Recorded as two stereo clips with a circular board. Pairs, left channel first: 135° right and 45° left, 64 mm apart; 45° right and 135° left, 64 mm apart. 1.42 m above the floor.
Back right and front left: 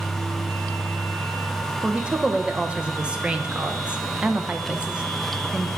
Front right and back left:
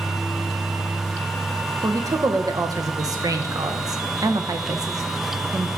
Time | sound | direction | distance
1.8 | a woman speaking | 120° left | 0.9 m